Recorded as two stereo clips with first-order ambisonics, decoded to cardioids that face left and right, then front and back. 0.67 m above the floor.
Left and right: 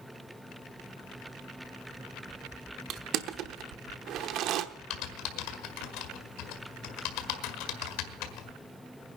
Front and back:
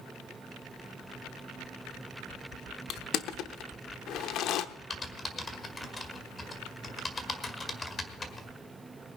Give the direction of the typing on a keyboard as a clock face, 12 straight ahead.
9 o'clock.